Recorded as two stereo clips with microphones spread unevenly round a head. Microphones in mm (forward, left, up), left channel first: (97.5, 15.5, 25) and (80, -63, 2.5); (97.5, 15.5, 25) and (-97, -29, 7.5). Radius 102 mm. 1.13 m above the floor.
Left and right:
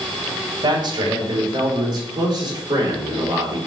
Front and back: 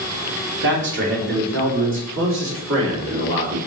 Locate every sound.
0.6 s a man speaking: 135° right, 2.5 m; by 3.7 s 150° right, 4 m